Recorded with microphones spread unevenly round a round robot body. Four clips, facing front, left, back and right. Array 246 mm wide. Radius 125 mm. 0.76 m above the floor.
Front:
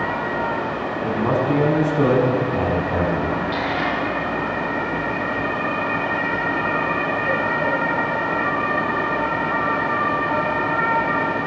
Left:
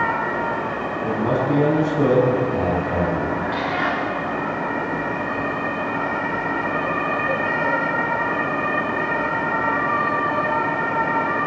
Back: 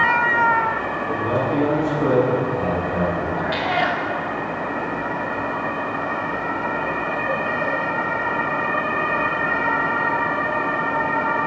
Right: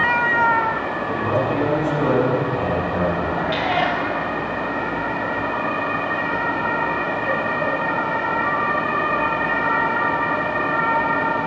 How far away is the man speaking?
About 7 m.